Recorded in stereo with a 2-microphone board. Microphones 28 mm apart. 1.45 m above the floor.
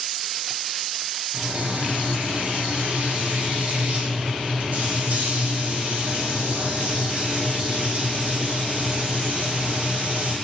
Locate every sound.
1.3 s frying: 65° right (ahead or behind), 2.5 m